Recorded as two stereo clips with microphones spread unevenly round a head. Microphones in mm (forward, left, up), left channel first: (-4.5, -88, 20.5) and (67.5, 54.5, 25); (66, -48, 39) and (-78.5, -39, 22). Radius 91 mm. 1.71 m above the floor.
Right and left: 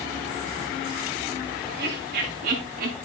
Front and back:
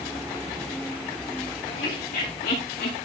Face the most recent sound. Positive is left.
turn(degrees=45)